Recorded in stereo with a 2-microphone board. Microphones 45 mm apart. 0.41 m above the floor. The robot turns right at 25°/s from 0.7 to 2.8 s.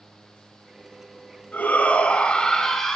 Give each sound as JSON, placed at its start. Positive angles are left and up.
{"t": 1.5, "sound": "a shout", "azimuth_deg": 140, "distance_m": 3.5}